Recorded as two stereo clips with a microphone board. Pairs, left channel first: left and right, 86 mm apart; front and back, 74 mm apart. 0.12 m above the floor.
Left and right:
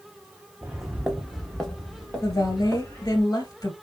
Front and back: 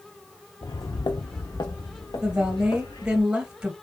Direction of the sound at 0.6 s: 15° right.